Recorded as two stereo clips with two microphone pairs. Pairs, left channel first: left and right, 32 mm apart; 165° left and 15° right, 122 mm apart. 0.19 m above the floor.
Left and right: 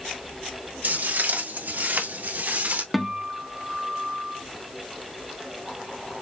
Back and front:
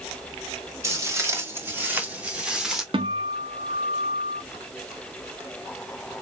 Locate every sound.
0.8 s footsteps: 80° right, 3 m; by 2.8 s 105° right, 1.9 m
2.9 s a guitar: 5° right, 0.8 m